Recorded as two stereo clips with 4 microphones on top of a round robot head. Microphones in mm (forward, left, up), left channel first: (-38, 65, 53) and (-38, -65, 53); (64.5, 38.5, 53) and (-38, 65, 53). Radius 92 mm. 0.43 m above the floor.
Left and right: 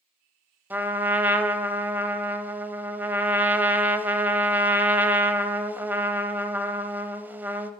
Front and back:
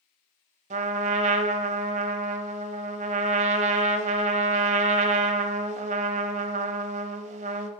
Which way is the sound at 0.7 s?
165° right.